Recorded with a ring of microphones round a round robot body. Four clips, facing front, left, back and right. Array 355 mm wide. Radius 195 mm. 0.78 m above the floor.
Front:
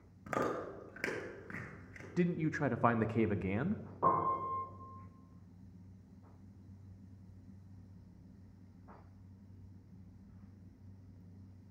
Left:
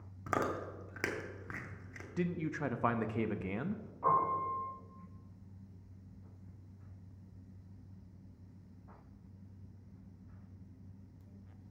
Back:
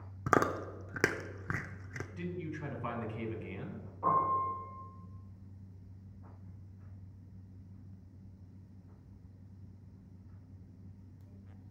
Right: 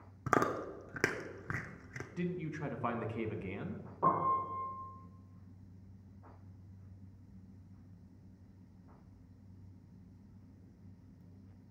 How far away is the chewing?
About 0.8 m.